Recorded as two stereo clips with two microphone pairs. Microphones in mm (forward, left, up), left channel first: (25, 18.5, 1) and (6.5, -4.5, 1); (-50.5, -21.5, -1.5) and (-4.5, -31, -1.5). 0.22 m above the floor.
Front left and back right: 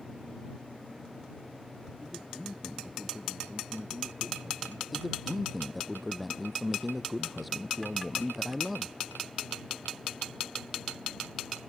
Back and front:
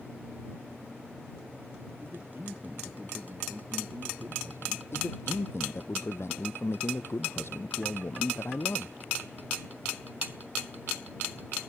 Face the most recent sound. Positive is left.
turn(degrees=150)